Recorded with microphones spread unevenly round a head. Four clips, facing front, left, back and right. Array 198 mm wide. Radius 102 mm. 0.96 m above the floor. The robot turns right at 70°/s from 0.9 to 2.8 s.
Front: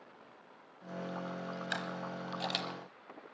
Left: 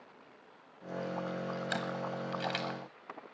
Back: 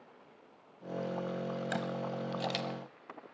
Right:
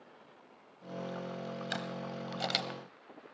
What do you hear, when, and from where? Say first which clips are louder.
1.7 s a camera shutter: left 3 dB, back 4 dB; straight behind, 1.0 m; by 2.8 s 100° right, 1.0 m